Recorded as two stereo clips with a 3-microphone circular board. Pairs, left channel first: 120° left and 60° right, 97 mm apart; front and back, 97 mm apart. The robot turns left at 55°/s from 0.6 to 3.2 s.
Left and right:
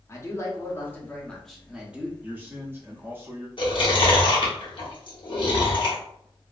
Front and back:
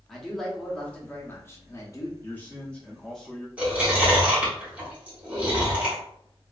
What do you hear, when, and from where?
0.1 s a man speaking: 85° left, 0.7 m; by 2.1 s straight ahead, 0.7 m
2.2 s a man speaking: 25° right, 0.6 m; by 3.5 s 80° right, 0.6 m
3.6 s chewing: 110° left, 1.1 m